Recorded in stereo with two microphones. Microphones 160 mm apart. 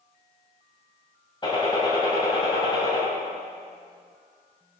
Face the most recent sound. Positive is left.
turn(degrees=30)  # may be behind; listen again after turning